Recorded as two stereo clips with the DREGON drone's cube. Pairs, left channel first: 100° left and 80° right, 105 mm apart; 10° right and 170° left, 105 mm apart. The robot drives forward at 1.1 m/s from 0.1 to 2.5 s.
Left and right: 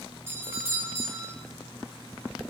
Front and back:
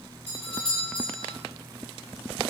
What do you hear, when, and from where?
0.3 s a doorbell: 15° right, 4 m; by 1.3 s 25° right, 3 m